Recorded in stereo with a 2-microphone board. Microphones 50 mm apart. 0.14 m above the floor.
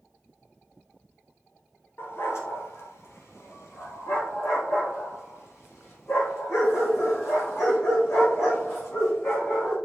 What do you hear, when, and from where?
2.0 s a dog barking: 55° left (ahead or behind), 1.4 m; by 9.8 s 60° left (ahead or behind), 4.5 m